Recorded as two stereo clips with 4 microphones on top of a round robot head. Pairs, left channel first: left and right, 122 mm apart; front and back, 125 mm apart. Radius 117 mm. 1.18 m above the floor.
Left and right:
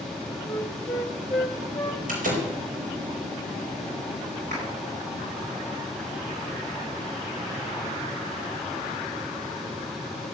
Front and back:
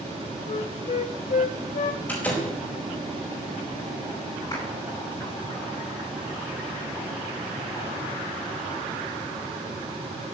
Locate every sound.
0.5 s a flute: 10° left, 1.2 m
2.1 s a door slam: 80° right, 5 m
4.5 s a clap: 65° right, 9.5 m